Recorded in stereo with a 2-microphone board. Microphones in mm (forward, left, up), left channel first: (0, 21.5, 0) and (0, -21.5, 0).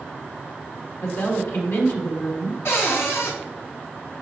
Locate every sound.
1.0 s a woman speaking: 60° left (ahead or behind), 1.6 m
2.6 s a cupboard door: 65° left (ahead or behind), 1.6 m